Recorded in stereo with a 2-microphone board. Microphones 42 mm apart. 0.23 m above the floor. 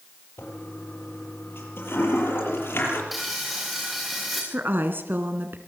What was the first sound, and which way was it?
A toilet flushing, 75° left (ahead or behind).